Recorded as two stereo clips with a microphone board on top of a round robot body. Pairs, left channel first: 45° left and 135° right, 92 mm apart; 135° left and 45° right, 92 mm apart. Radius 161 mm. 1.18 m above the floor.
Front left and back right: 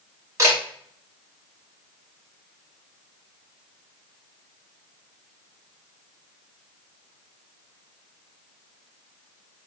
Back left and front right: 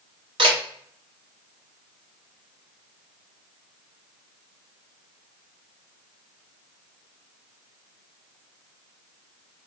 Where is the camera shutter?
75° right, 1.4 m.